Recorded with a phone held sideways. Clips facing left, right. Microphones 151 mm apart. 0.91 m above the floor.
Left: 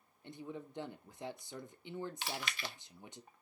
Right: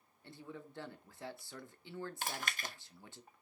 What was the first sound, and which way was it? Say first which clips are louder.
A man speaking: left 4 dB; 20° left (ahead or behind).